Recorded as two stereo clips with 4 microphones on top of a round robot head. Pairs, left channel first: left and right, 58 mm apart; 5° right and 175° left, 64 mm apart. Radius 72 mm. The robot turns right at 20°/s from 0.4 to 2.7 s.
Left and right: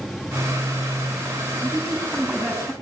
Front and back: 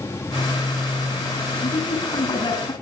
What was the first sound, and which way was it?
A woman speaking, 10° right.